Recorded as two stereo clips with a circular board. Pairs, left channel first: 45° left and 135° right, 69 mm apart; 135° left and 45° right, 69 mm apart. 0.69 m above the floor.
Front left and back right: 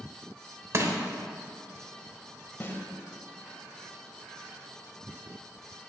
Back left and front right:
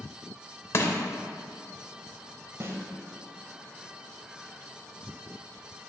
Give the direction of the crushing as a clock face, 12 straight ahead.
6 o'clock.